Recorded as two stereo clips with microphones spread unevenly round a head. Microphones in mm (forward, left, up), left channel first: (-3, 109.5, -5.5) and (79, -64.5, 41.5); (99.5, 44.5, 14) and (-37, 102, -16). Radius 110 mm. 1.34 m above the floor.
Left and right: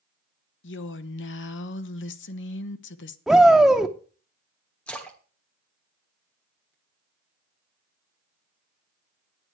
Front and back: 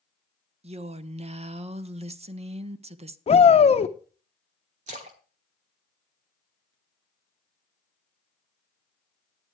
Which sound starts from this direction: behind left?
A woman speaking, at 0.6 s.